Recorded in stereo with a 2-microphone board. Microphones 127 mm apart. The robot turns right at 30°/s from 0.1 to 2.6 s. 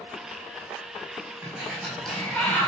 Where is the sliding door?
20° right, 2.5 m; by 2.7 s 20° left, 2.5 m.